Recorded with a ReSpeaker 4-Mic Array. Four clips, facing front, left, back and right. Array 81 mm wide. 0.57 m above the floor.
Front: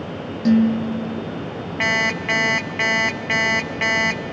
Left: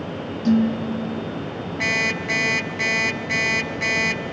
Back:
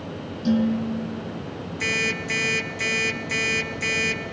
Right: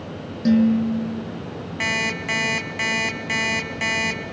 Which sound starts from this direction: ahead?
An alarm clock, at 1.8 s.